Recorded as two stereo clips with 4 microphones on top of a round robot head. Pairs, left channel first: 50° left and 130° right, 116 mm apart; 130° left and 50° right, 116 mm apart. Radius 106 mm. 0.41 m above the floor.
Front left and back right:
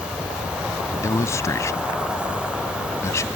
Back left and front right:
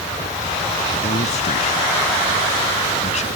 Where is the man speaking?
115° left.